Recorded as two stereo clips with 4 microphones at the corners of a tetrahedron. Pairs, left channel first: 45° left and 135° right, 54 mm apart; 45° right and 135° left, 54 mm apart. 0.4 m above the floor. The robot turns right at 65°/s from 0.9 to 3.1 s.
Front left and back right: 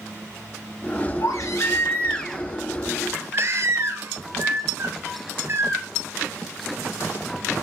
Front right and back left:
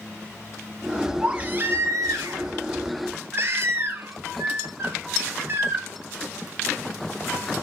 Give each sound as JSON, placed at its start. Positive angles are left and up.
{"t": 1.2, "sound": "a baby crying", "azimuth_deg": 60, "distance_m": 2.5}